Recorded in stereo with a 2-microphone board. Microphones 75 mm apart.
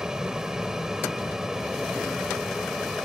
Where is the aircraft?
10° right (ahead or behind); by 3.1 s 5° right (ahead or behind).